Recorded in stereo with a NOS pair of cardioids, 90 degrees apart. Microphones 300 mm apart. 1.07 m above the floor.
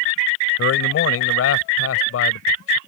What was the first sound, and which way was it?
A man speaking, 55° left.